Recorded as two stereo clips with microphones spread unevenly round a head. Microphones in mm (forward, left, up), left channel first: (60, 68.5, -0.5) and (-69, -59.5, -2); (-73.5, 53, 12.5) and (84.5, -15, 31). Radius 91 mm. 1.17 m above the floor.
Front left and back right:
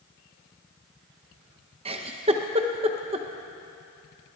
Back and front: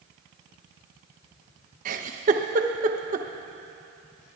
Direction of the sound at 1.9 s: 75° right.